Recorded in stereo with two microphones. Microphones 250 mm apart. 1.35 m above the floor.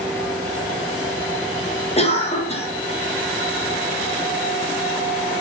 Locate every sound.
2.0 s a cough: 25° left (ahead or behind), 0.6 m